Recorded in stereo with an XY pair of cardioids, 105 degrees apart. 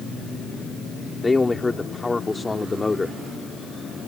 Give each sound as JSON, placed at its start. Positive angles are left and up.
{"t": 1.2, "sound": "a man speaking", "azimuth_deg": 20}